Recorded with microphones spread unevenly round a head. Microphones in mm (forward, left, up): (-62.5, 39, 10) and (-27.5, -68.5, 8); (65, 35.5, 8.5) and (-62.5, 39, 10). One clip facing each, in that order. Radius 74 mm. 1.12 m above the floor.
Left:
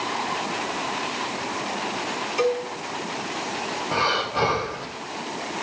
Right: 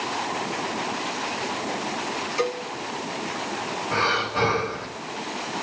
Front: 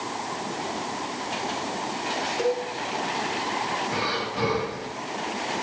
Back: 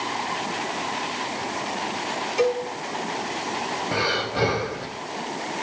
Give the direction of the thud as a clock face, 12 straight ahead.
I don't hear a thud.